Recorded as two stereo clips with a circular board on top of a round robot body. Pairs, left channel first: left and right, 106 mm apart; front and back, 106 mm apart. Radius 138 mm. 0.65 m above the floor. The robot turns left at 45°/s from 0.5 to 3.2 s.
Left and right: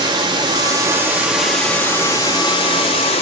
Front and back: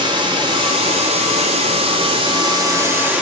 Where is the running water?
135° right, 1.3 m; by 3.2 s 105° left, 1.3 m.